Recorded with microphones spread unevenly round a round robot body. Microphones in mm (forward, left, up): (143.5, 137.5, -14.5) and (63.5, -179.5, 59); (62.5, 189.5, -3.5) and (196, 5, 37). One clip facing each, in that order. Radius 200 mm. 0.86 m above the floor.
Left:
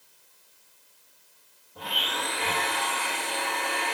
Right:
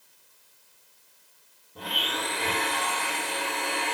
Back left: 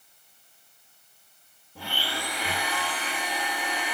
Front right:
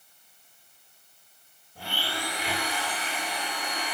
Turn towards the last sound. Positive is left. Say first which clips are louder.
# right 2 dB, even
turn(degrees=-175)